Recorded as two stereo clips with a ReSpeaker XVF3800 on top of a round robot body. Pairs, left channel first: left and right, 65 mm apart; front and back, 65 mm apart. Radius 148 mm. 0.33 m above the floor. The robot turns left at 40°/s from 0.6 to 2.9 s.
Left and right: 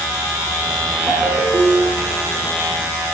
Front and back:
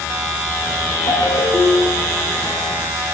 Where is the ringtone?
25° right, 3.5 m; by 2.1 s 70° right, 3.5 m.